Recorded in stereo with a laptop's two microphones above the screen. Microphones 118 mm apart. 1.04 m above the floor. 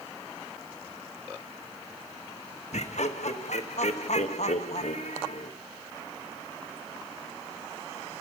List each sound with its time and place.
2.7 s laughter: 75° left (ahead or behind), 0.9 m